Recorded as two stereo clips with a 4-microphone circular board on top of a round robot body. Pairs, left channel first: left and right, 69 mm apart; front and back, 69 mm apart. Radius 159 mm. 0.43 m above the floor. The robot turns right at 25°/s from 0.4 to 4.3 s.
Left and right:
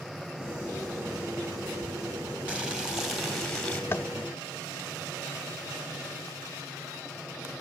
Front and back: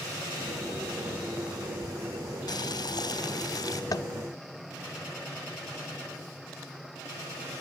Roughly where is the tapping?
Ahead left.